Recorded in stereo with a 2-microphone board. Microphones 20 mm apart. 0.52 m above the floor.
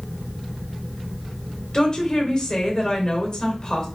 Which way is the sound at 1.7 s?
35° left (ahead or behind).